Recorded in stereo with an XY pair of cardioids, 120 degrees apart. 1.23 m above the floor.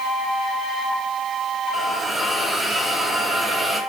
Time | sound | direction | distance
1.7 | a hiss | 10° right | 7.5 m